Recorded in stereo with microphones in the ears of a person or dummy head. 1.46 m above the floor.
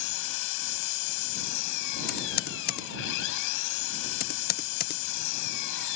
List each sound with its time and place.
0.0 s an engine running: 75° left (ahead or behind)
2.1 s typing on a keyboard: 45° left (ahead or behind)